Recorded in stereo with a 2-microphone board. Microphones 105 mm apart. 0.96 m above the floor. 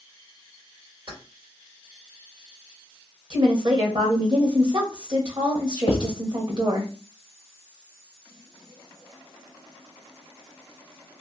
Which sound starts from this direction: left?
Writing, at 5.9 s.